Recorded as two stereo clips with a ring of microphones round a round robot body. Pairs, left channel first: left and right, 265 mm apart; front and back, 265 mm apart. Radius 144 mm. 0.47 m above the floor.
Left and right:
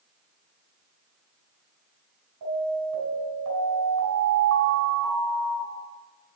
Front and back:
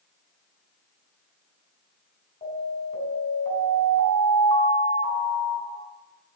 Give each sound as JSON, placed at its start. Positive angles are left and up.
{"t": 2.4, "sound": "an alarm", "azimuth_deg": -60, "distance_m": 4.0}